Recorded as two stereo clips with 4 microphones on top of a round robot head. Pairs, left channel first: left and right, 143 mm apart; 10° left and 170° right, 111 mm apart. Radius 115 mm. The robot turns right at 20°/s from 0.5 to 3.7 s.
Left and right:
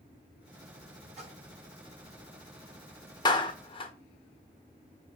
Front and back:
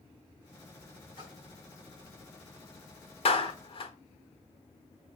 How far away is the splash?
About 4 m.